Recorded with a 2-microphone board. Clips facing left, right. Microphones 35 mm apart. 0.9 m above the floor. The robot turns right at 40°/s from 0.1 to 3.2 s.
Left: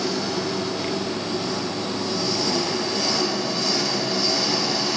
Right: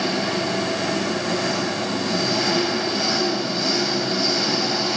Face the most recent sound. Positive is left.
turn(degrees=-20)